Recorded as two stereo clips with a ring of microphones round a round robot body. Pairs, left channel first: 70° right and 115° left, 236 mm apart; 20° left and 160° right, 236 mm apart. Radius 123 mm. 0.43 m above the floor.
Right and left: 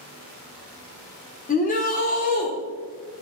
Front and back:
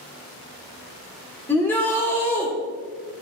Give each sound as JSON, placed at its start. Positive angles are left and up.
{"t": 1.5, "sound": "a shout", "azimuth_deg": -55, "distance_m": 1.5}